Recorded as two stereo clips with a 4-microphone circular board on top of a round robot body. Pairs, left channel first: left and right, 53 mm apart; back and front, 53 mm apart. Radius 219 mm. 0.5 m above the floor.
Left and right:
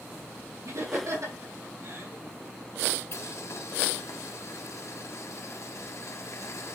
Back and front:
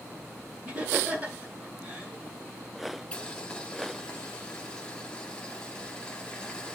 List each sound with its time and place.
0.7 s laughter: 65° right, 4 m
3.1 s boiling: 105° left, 1.4 m